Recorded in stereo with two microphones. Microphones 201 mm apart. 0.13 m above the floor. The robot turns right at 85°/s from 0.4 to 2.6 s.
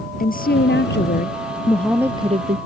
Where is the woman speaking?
55° left; by 2.6 s 125° right.